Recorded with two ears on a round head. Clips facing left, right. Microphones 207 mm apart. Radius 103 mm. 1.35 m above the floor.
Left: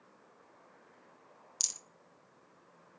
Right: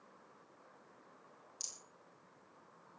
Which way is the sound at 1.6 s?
80° left.